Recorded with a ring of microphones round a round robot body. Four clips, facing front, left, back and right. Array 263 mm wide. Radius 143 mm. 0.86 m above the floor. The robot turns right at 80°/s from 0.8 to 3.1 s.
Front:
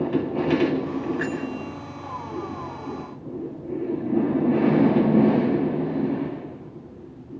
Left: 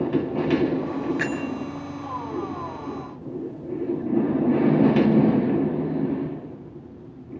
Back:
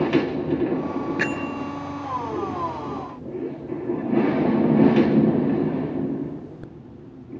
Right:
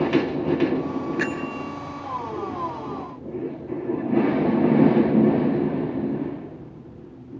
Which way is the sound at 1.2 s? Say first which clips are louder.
Even, back 2 dB; 175° left.